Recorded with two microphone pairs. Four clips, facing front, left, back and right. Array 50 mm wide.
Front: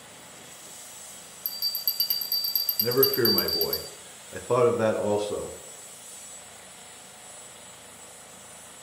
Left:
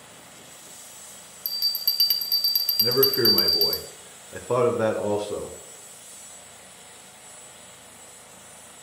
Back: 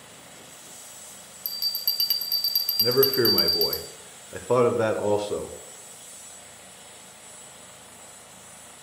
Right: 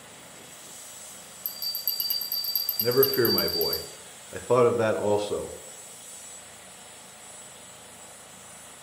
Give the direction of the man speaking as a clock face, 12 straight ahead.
5 o'clock.